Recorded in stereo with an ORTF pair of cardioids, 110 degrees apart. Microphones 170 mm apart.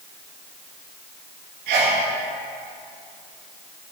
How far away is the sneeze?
About 1.9 m.